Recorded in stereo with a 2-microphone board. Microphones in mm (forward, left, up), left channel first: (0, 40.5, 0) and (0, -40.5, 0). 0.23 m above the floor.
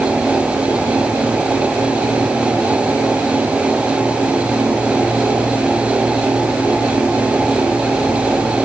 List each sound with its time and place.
Only background noise.